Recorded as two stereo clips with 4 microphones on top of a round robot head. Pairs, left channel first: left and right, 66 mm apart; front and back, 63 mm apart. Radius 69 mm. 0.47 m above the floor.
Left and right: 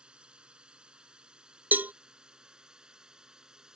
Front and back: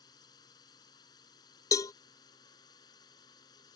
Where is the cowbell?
30° right.